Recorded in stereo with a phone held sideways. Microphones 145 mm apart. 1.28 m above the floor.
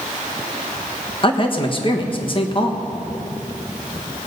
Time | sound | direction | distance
1.2 | a man speaking | 35° left (ahead or behind) | 1.4 m